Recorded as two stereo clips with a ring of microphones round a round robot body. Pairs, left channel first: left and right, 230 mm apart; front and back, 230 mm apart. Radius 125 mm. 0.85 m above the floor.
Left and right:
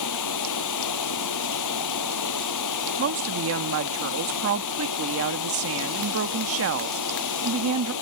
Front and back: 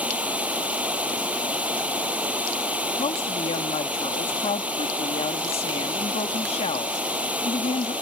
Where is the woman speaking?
70° right.